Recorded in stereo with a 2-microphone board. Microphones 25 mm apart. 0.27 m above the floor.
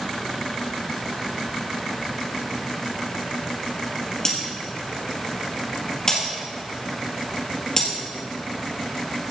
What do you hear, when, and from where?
4.2 s breaking glass: 25° left (ahead or behind), 4.5 m